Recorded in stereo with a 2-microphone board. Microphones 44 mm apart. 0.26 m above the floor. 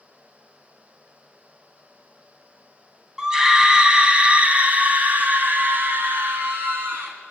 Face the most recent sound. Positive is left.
turn(degrees=-60)  # may be behind; listen again after turning